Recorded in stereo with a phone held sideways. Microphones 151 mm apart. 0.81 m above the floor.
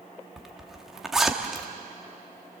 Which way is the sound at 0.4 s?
Centre (ahead or behind).